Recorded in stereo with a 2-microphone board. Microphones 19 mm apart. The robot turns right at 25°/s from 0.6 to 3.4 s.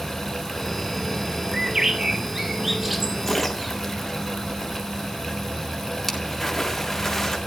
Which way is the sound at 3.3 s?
5° left (ahead or behind).